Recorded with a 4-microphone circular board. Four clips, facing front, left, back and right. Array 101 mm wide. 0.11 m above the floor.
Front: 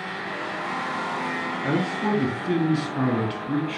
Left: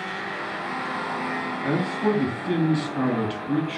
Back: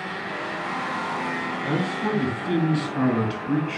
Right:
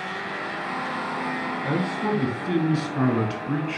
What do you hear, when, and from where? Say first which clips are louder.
1.6 s a man speaking: left 3 dB, front 2 dB; 10° left, 1.5 m; by 3.8 s 125° right, 1.5 m